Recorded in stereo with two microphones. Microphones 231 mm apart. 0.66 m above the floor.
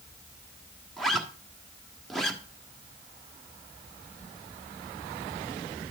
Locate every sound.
1.0 s a zipper: centre (ahead or behind), 1.3 m